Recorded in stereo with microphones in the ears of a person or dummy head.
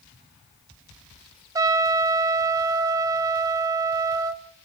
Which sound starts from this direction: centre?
A trumpet, at 1.6 s.